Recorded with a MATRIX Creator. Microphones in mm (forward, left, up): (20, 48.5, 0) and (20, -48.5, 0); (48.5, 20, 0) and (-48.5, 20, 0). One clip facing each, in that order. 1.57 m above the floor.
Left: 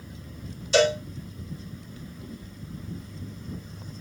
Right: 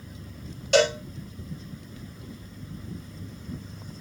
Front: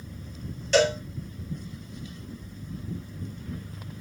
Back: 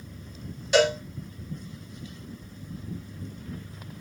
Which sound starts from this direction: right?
A cowbell, at 0.7 s.